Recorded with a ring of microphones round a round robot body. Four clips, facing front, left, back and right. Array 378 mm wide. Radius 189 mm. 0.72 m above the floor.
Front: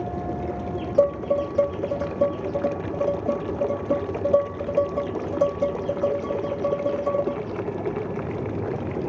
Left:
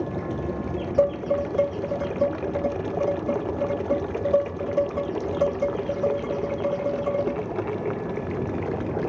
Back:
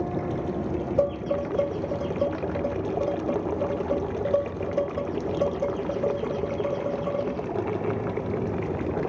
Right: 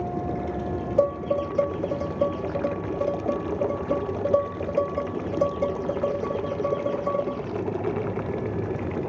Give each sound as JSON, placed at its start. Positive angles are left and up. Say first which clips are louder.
{"t": 1.0, "sound": "dishes clattering", "louder": "left 1 dB, front 6 dB", "azimuth_deg": 20, "distance_m": 1.2}